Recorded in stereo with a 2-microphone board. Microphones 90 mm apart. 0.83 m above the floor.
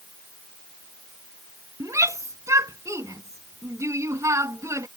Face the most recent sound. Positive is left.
turn(degrees=-35)  # may be behind; listen again after turning